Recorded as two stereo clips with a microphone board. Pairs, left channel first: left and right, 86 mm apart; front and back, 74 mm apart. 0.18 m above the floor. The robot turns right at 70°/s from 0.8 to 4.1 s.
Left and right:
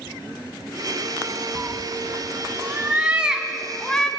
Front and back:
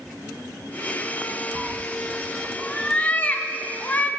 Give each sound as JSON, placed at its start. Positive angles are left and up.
{"t": 1.6, "sound": "a cat meowing", "azimuth_deg": -145, "distance_m": 0.8}